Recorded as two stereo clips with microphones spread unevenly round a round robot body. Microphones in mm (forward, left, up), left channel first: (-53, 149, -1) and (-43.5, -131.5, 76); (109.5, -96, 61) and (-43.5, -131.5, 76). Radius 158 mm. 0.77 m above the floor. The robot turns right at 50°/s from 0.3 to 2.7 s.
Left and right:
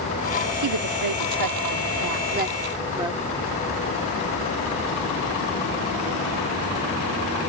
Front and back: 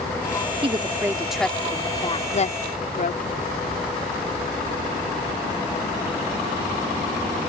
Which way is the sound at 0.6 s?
110° right.